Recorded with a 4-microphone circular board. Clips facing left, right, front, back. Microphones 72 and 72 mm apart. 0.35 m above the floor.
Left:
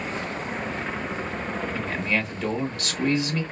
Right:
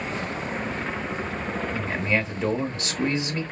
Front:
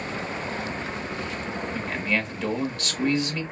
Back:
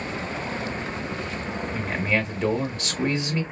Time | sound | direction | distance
1.7 | a man speaking | 130° right | 1.0 m